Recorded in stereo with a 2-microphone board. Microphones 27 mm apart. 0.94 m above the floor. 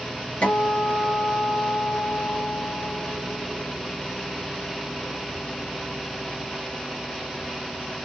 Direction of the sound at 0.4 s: 60° left (ahead or behind).